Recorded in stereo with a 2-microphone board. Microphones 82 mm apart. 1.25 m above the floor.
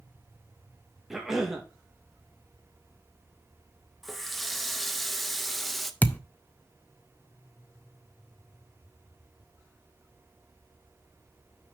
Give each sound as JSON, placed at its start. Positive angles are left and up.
{"t": 1.1, "sound": "a cough", "side_deg": -5, "distance_m": 1.9}
{"t": 4.0, "sound": "a running tap", "side_deg": 0, "distance_m": 0.7}
{"t": 6.0, "sound": "a thud", "side_deg": 20, "distance_m": 0.5}